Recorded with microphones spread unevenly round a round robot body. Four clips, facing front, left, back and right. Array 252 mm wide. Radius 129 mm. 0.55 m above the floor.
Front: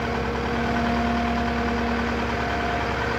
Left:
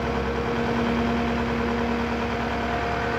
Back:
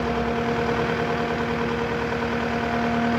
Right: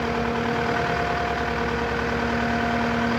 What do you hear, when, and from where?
Only background noise.